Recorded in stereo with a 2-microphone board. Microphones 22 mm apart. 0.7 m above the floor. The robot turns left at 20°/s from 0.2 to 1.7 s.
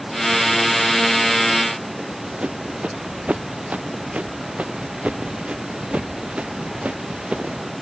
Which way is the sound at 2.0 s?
75° right (ahead or behind).